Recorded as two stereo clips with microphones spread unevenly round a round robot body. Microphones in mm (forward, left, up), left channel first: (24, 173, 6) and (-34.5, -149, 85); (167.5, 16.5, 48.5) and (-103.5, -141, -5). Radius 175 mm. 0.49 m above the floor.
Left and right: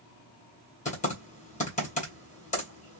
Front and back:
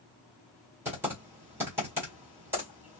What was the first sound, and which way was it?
Typing on a keyboard, 135° left.